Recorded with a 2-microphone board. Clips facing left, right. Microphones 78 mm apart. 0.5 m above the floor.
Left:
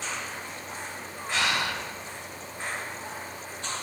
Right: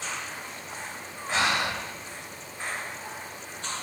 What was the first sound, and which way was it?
Breathing, 30° right (ahead or behind).